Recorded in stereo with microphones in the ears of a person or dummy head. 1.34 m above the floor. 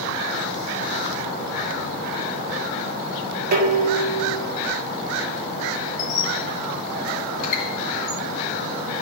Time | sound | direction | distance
3.5 | dishes clattering | 55° right (ahead or behind) | 1.8 m
6.0 | a squeak | 50° left (ahead or behind) | 2.5 m